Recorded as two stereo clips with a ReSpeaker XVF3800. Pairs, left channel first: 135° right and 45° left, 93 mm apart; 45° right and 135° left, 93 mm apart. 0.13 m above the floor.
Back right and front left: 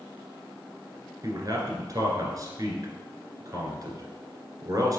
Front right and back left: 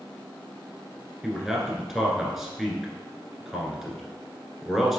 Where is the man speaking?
50° left, 1.6 m.